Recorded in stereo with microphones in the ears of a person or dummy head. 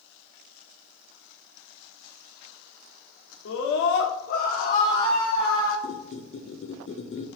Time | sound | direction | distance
3.5 | a scream | 70° left (ahead or behind) | 1.6 m
5.8 | a squeak | 30° left (ahead or behind) | 0.8 m